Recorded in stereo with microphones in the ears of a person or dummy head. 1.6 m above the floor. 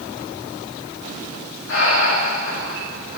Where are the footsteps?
No footsteps in this recording.